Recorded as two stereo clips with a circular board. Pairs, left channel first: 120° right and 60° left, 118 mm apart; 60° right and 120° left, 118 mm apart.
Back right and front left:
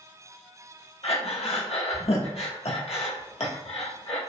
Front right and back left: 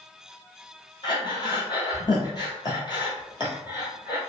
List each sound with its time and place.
1.0 s breathing: 105° right, 1.1 m